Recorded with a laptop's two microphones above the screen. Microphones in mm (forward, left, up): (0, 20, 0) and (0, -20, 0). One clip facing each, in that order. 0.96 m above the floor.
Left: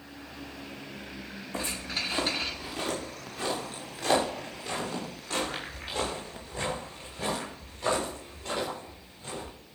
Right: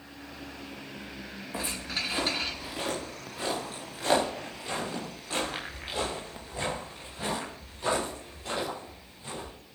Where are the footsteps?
15° right (ahead or behind), 3.5 m.